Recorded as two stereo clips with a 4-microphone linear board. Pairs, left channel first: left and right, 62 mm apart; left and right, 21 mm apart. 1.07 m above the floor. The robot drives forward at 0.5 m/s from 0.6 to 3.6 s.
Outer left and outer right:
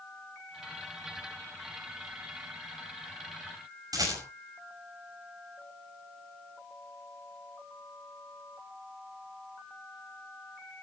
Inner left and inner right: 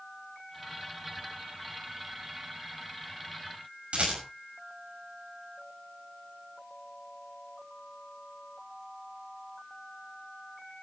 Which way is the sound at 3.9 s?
75° right (ahead or behind).